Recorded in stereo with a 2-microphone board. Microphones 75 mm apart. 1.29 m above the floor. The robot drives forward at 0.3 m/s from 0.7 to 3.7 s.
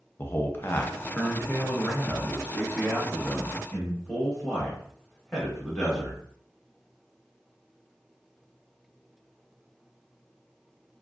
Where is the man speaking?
30° left (ahead or behind), 0.5 m; by 6.2 s 10° left (ahead or behind), 1.4 m.